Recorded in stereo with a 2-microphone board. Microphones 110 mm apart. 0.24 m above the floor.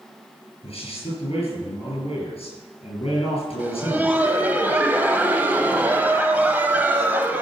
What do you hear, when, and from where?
0.6 s a man speaking: 60° left (ahead or behind), 5 m
3.6 s laughter: 15° right (ahead or behind), 1.0 m